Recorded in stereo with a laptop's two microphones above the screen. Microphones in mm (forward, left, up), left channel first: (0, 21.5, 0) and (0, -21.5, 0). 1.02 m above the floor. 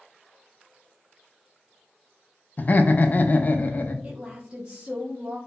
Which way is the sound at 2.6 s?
40° left (ahead or behind).